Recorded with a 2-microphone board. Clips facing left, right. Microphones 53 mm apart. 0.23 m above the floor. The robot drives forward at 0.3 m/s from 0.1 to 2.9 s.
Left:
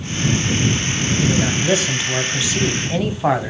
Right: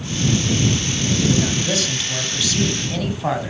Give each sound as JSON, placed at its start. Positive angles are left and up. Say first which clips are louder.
{"t": 1.2, "sound": "a man speaking", "louder": "left 1 dB", "side_deg": 25, "distance_m": 1.3}